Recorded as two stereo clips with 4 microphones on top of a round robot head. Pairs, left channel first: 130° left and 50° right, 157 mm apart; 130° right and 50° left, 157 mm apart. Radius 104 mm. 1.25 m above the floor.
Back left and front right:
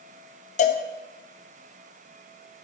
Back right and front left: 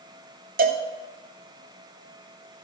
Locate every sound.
0.6 s a cowbell: 80° left, 1.7 m